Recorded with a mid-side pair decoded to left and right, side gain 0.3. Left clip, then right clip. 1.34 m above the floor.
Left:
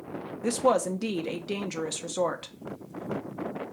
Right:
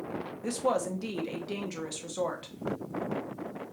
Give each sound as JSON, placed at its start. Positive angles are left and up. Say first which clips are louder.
{"t": 0.4, "sound": "a woman speaking", "louder": "left 5 dB", "azimuth_deg": 65, "distance_m": 0.8}